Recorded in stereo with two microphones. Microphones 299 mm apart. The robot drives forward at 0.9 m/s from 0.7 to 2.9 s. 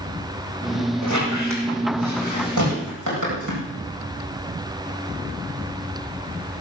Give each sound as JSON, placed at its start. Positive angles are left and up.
{"t": 1.0, "sound": "a squeak", "side_deg": -55, "distance_m": 9.5}